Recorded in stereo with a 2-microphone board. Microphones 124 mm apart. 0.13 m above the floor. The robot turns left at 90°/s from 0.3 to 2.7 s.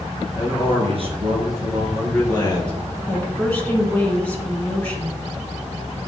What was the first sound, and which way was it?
A man speaking, 35° right.